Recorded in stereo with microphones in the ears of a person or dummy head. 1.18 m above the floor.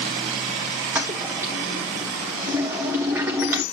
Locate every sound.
0.9 s a toilet flushing: 15° right (ahead or behind), 0.9 m